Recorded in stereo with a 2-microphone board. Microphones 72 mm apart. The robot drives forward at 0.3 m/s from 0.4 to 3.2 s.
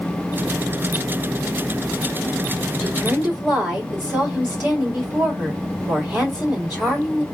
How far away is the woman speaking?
About 2.5 m.